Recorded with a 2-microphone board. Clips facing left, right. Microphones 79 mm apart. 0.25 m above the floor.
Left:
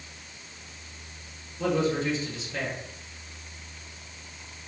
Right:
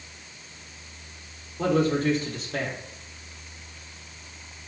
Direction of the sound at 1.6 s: 55° right (ahead or behind).